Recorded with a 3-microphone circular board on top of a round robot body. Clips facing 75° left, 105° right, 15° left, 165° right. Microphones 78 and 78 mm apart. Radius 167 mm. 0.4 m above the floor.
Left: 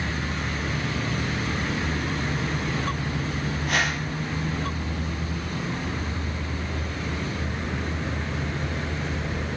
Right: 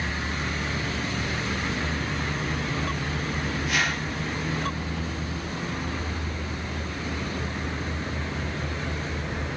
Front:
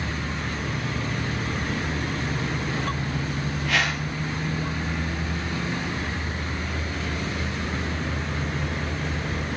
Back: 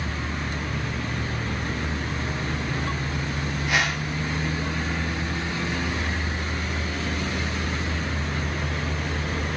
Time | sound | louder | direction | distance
3.7 | a whoosh | left 2 dB, even | 125° left | 2.5 m